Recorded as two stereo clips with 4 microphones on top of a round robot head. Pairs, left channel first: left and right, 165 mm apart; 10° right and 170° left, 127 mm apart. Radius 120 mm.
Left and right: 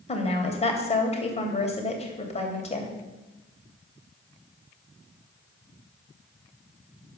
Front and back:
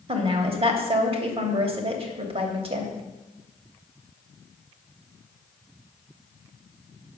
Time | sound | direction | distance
0.1 | a woman speaking | 135° left | 2.5 m